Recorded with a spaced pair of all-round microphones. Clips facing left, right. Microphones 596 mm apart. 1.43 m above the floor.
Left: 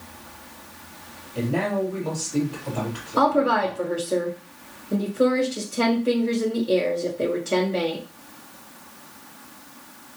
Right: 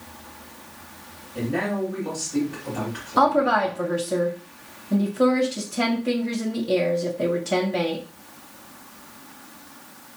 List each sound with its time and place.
1.4 s a man speaking: 45° right (ahead or behind), 2 m
3.2 s a woman speaking: 20° right (ahead or behind), 0.8 m